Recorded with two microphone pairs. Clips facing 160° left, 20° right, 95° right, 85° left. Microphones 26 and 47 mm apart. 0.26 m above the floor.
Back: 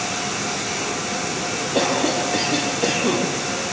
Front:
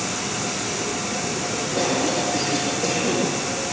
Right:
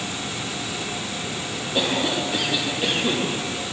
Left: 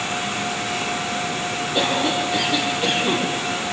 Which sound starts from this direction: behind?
A cough, at 1.8 s.